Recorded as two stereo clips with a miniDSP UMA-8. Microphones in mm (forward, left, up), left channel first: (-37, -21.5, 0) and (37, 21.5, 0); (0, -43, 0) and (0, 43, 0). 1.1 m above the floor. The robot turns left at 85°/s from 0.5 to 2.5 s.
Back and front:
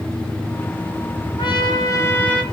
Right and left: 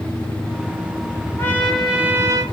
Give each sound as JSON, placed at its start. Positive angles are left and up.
{"t": 1.4, "sound": "a trumpet", "azimuth_deg": -145, "distance_m": 0.8}